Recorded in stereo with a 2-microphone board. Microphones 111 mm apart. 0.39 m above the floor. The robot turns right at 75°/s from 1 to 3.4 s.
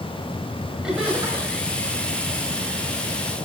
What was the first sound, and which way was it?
Laughter, 170° right.